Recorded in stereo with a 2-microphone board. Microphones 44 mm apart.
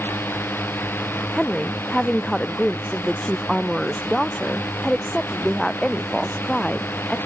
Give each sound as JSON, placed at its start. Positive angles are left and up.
{"t": 0.0, "sound": "a drone", "side_deg": 55}
{"t": 1.3, "sound": "a woman speaking", "side_deg": 10}